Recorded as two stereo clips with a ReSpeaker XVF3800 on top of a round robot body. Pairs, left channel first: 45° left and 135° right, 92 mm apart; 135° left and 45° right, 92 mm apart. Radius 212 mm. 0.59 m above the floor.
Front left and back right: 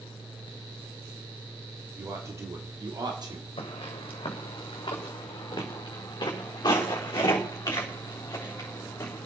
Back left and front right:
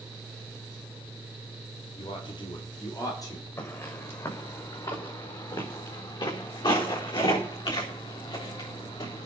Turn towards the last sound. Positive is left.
turn(degrees=105)